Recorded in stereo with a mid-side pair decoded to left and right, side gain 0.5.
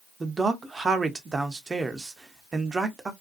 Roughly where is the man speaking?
Ahead right.